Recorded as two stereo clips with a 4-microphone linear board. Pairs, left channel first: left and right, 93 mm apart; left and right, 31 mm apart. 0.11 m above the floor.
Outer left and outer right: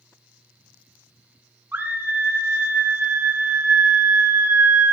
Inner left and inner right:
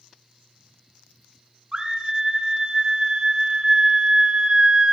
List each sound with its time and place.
1.7 s a scream: 20° right (ahead or behind), 1.7 m